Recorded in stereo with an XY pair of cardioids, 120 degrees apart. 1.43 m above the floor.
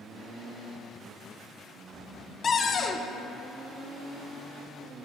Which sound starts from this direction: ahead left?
A cupboard door, at 2.4 s.